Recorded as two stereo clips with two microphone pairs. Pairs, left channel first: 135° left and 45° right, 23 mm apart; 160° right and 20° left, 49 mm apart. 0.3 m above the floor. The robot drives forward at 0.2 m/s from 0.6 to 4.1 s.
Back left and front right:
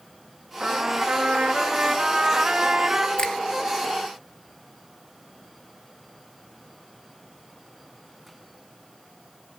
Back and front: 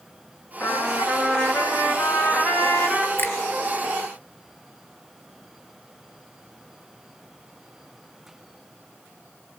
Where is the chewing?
I don't hear chewing.